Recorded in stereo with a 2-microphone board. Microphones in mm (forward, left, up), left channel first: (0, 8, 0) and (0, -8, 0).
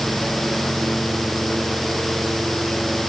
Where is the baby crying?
No baby crying in this recording.